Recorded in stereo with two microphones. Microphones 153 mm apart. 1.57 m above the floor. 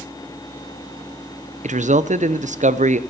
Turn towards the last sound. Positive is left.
turn(degrees=-60)  # may be behind; listen again after turning